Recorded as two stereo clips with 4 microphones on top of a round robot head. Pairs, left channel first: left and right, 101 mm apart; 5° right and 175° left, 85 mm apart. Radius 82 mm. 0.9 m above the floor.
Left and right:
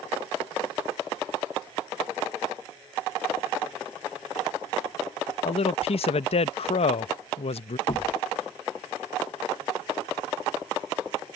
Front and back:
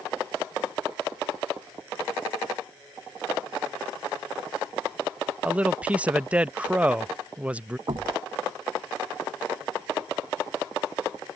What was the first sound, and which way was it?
A man speaking, 100° left.